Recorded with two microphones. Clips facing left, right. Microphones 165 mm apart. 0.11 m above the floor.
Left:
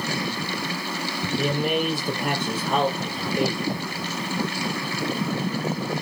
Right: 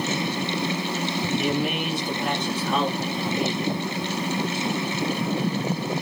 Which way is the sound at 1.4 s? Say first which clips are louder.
Left 4 dB; 40° left (ahead or behind).